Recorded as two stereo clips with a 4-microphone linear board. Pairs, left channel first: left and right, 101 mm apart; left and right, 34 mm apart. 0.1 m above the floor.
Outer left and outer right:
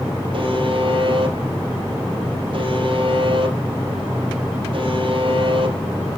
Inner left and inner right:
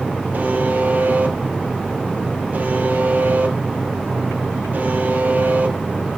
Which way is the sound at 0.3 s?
55° right (ahead or behind).